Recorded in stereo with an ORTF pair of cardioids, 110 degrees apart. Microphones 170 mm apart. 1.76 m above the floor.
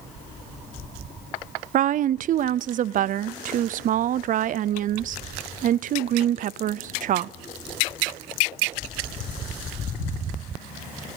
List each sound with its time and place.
1.7 s a woman speaking: 50° right, 0.6 m